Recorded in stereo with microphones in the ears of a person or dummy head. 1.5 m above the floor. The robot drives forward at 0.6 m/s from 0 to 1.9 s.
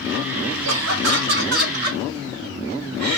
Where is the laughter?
75° right (ahead or behind), 1.1 m; by 3.2 s 55° right (ahead or behind), 1.4 m.